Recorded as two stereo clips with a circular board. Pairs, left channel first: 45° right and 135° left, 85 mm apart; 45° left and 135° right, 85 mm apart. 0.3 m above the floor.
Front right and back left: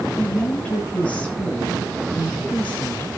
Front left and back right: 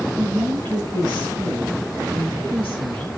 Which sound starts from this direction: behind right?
A woman speaking, at 0.2 s.